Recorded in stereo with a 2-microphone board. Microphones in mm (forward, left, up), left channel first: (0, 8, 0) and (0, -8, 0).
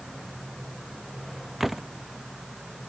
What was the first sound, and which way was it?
A door slam, 15° right (ahead or behind).